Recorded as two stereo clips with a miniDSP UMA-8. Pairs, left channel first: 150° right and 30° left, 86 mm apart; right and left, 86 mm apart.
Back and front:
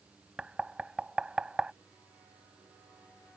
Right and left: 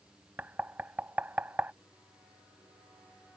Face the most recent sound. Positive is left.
turn(degrees=90)